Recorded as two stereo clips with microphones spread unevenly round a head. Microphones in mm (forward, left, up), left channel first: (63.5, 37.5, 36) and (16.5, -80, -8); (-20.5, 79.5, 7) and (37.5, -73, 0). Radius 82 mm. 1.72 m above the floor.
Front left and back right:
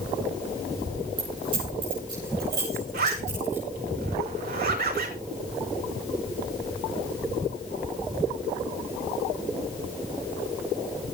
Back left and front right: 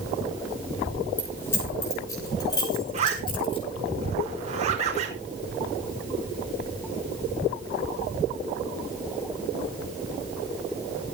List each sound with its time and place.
1.2 s keys jangling: 170° right, 6 m; by 3.6 s 170° left, 6.5 m
2.9 s a zipper: 120° right, 5.5 m